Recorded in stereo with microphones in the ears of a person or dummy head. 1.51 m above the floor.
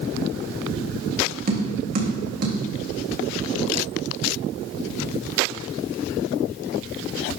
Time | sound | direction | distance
1.5 | tapping | 45° right (ahead or behind) | 2 m